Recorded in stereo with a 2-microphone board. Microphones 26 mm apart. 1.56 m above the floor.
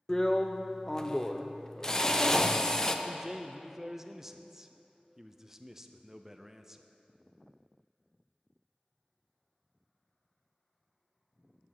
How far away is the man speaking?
About 0.6 m.